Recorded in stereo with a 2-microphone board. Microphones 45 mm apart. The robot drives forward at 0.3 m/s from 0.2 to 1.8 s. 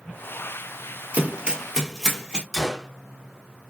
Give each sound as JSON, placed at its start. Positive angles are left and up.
{"t": 1.1, "sound": "running footsteps", "side_deg": -35, "distance_m": 1.0}
{"t": 2.5, "sound": "a gunshot", "side_deg": 0, "distance_m": 0.8}